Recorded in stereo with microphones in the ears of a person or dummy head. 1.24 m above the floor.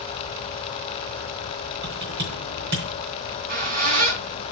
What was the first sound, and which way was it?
Typing on a keyboard, 65° right (ahead or behind).